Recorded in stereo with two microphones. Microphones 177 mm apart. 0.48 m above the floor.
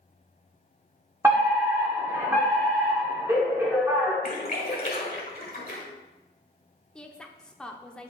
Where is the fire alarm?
15° right (ahead or behind), 2 m.